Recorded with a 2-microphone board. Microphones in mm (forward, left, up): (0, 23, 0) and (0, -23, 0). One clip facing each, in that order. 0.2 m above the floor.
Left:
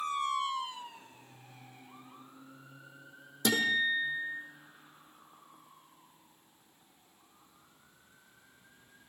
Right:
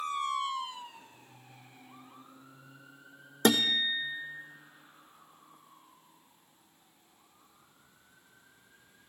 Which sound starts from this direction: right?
A guitar, at 3.5 s.